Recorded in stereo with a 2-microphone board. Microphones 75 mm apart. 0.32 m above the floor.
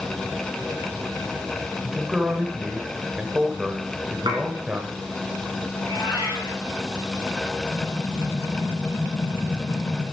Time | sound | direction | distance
1.8 | a man speaking | 10° right (ahead or behind) | 1.2 m
4.3 | dishes clattering | 75° right (ahead or behind) | 2.5 m
5.8 | a cat meowing | 55° left (ahead or behind) | 6.5 m
7.7 | an explosion | 55° left (ahead or behind) | 3.5 m